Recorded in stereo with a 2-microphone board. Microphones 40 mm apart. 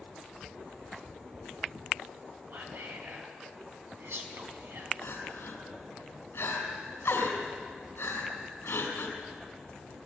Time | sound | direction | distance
2.5 | whispering | 75° right (ahead or behind) | 5 m
5.0 | crying | 70° left (ahead or behind) | 5.5 m